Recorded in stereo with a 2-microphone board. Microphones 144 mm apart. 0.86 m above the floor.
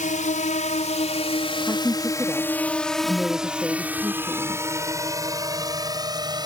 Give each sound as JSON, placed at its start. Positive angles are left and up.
{"t": 0.0, "sound": "a drone", "side_deg": 60}
{"t": 1.6, "sound": "a woman speaking", "side_deg": -5}